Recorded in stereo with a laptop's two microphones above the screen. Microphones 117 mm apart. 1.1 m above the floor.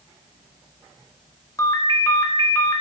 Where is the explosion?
I don't hear an explosion.